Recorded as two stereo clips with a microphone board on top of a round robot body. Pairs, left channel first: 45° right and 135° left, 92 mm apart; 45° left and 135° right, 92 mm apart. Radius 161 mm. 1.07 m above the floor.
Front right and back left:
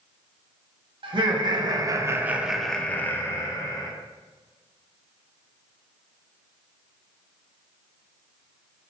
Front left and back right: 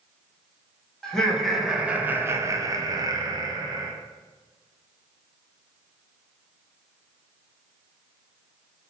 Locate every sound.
1.0 s laughter: 125° left, 0.9 m; by 3.9 s 90° right, 1.0 m